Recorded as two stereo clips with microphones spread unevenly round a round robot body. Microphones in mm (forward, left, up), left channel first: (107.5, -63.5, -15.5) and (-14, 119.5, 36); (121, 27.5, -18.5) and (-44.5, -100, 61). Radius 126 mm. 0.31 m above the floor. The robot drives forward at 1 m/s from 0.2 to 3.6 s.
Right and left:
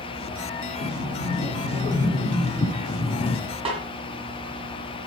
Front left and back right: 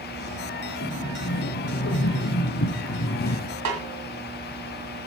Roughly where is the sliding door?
Ahead.